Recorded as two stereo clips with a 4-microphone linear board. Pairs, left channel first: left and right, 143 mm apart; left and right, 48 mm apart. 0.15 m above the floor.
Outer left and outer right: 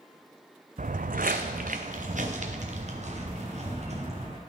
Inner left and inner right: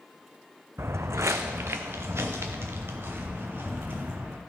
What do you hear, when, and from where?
0.8 s footsteps: 65° right (ahead or behind), 0.5 m; by 4.4 s 50° right (ahead or behind), 2.5 m